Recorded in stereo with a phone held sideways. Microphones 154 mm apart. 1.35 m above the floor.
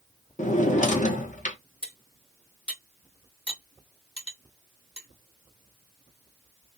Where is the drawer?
55° left (ahead or behind), 0.7 m.